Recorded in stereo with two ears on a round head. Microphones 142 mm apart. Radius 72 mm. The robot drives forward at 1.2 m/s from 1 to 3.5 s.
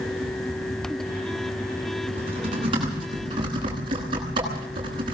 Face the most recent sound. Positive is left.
turn(degrees=-30)  # may be behind; listen again after turning